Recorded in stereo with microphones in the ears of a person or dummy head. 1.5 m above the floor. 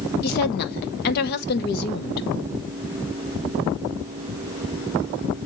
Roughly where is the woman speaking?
Left.